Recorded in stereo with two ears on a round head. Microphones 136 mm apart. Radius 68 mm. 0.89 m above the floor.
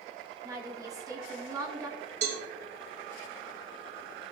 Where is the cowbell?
75° right (ahead or behind), 2.5 m.